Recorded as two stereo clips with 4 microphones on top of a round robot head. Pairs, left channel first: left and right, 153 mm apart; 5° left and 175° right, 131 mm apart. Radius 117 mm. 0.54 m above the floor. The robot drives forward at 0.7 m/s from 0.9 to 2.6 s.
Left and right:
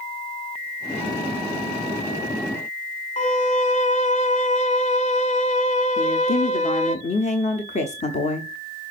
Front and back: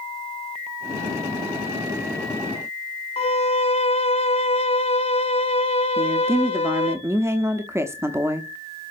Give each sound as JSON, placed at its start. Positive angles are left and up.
{"t": 3.2, "sound": "a violin", "azimuth_deg": 50, "distance_m": 1.0}
{"t": 6.0, "sound": "a woman speaking", "azimuth_deg": 115, "distance_m": 1.0}